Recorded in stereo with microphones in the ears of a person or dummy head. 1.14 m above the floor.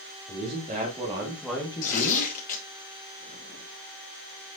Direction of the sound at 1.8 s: 40° left (ahead or behind).